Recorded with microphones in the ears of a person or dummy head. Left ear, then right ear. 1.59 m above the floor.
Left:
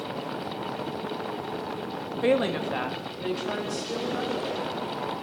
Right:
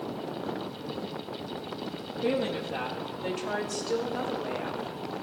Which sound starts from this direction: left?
A woman speaking, at 2.2 s.